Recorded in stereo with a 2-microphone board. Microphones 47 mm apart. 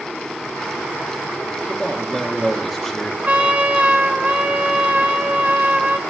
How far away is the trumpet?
About 0.8 m.